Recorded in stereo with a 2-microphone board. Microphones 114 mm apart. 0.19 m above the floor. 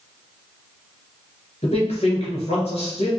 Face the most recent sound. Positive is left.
turn(degrees=65)  # may be behind; listen again after turning